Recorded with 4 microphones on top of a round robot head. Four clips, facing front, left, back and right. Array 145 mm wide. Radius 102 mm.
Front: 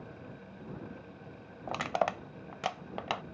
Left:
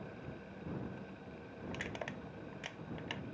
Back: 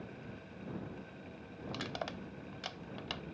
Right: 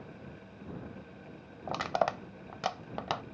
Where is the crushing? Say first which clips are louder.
Right 14 dB, front 10 dB; 50° right.